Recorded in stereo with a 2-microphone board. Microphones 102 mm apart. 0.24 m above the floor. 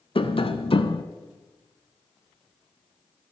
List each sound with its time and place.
0.1 s tapping: 65° left (ahead or behind), 0.8 m